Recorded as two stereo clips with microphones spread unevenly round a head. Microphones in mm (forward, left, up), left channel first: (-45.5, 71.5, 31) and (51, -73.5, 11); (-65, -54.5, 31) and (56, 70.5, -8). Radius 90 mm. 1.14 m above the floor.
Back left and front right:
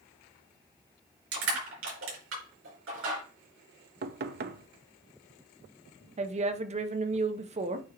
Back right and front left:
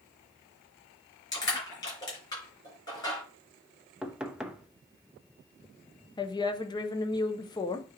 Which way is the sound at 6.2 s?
60° right.